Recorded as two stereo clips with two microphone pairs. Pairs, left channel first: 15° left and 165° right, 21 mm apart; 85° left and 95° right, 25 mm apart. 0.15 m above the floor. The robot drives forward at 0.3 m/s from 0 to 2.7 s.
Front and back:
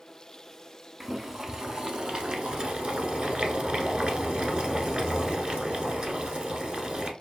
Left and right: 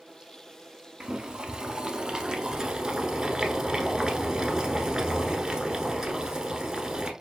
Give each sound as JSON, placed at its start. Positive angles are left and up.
{"t": 1.0, "sound": "boiling", "azimuth_deg": -100, "distance_m": 0.5}